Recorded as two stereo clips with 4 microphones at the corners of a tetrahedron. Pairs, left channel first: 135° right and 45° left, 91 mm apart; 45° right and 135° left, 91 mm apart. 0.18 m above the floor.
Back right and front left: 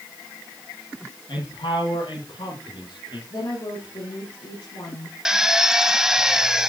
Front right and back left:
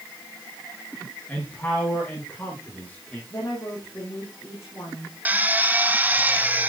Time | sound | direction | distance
1.3 | a man speaking | 115° right | 9.5 m
3.3 | a woman speaking | 100° right | 7.5 m
5.2 | a drill | 115° left | 1.0 m